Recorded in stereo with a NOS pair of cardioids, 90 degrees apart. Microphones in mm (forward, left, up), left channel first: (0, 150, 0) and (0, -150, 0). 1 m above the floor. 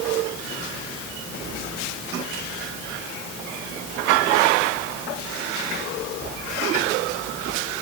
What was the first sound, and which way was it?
Only background noise.